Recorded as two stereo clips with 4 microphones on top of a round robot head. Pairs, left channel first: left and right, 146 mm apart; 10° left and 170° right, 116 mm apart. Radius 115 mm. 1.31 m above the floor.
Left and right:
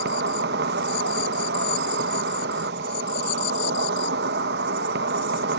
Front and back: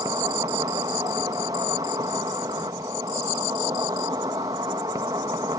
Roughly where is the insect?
Right.